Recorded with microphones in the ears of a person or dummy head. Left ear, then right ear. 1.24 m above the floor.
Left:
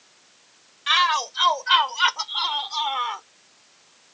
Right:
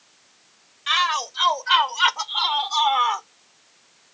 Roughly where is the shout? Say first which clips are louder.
Left 1 dB; centre.